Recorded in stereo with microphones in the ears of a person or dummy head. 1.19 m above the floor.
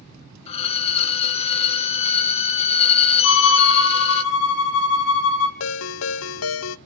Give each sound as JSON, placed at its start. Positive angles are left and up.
{"t": 0.5, "sound": "a violin", "side_deg": 30, "distance_m": 1.0}
{"t": 3.2, "sound": "a violin", "side_deg": 60, "distance_m": 2.0}
{"t": 5.6, "sound": "a ringtone", "side_deg": 80, "distance_m": 0.8}